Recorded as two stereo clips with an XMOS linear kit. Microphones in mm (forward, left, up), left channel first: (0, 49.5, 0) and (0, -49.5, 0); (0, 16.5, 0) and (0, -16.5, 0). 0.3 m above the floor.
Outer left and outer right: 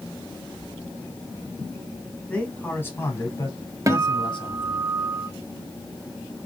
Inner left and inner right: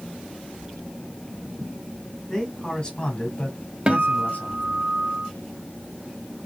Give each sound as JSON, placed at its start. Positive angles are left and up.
{"t": 2.3, "sound": "a man speaking", "side_deg": 10, "distance_m": 2.0}
{"t": 3.9, "sound": "a guitar", "side_deg": -35, "distance_m": 0.5}